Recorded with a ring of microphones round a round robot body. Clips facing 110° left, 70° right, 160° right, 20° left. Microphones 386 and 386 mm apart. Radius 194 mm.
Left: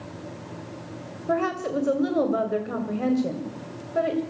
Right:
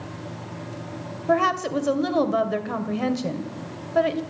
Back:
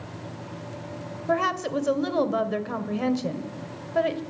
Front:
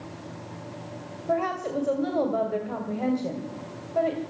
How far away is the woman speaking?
About 2.5 m.